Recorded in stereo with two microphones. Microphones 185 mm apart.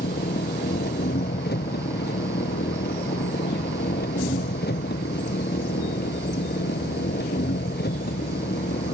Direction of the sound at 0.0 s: 60° left (ahead or behind).